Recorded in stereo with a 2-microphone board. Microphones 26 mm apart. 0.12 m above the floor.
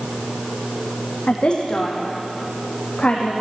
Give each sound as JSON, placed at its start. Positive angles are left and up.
{"t": 1.3, "sound": "a woman speaking", "side_deg": 45, "distance_m": 5.0}